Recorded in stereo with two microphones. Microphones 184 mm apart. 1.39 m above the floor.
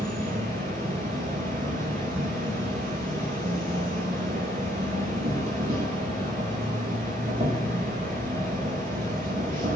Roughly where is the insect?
Right.